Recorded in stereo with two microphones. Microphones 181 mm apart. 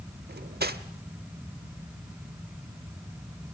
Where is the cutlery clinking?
65° right (ahead or behind), 0.8 m.